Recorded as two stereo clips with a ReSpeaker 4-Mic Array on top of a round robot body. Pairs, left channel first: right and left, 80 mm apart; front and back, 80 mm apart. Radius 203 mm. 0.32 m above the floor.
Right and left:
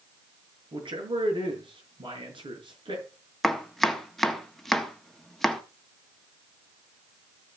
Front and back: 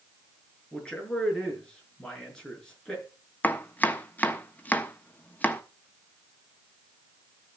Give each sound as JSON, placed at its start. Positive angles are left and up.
{"t": 0.7, "sound": "a man speaking", "azimuth_deg": 80, "distance_m": 6.5}
{"t": 3.4, "sound": "chopping", "azimuth_deg": -10, "distance_m": 1.5}